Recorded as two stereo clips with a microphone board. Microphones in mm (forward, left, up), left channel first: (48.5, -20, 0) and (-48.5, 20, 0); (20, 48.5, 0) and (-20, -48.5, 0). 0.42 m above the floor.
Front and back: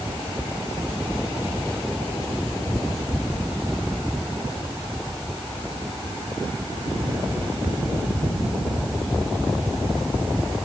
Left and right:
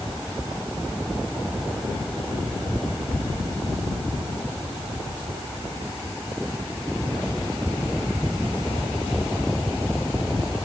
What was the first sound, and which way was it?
Only background noise.